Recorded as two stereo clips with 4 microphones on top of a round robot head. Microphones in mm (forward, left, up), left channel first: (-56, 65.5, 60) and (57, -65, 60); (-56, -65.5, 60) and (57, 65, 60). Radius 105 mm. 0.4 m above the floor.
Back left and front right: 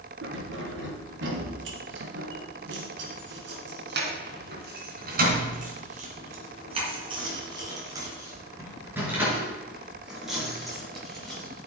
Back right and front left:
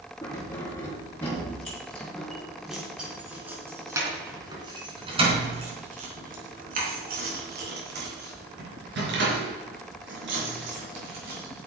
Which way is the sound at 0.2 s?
60° right.